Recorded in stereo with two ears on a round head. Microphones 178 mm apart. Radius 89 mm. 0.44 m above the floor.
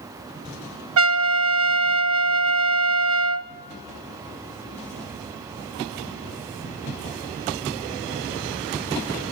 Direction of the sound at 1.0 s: 70° right (ahead or behind).